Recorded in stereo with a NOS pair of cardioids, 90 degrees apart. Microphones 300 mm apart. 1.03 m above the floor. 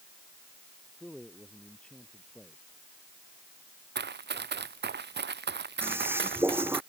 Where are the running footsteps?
40° right.